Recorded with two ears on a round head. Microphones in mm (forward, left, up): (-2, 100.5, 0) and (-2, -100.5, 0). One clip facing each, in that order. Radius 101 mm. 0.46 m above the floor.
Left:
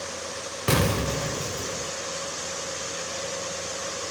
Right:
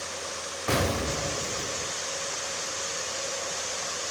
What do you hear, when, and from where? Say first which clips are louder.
0.7 s an explosion: left 3 dB; 50° left (ahead or behind), 0.6 m